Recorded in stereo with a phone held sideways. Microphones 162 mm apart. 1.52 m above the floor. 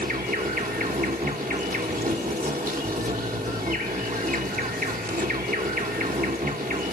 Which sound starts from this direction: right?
An insect, at 0.0 s.